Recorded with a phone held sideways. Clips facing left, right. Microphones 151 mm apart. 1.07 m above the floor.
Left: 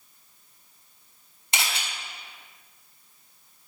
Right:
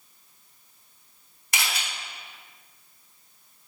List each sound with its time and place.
1.5 s a camera shutter: 25° left (ahead or behind), 2 m